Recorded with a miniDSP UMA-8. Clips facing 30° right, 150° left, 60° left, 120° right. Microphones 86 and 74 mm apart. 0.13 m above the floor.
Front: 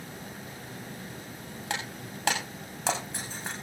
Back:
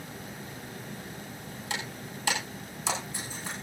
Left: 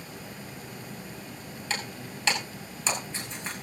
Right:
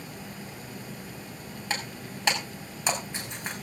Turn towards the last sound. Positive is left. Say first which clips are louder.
# front 2 dB, right 1 dB
turn(degrees=-45)